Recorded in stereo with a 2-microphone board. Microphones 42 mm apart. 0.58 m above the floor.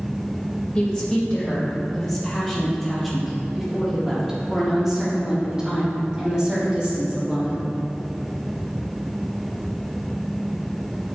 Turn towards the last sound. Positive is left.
turn(degrees=-25)  # may be behind; listen again after turning